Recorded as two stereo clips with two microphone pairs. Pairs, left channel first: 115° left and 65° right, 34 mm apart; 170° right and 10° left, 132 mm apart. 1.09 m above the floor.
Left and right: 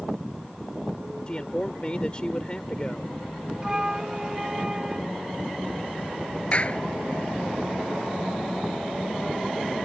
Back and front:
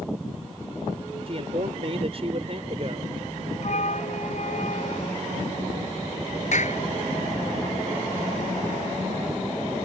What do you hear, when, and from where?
1.3 s a man speaking: 50° left
3.6 s a flute: 140° right
6.5 s a clap: 165° left